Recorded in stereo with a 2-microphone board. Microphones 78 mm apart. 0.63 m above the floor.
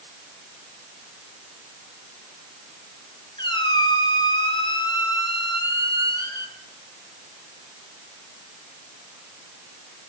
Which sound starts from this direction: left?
A squeak, at 3.4 s.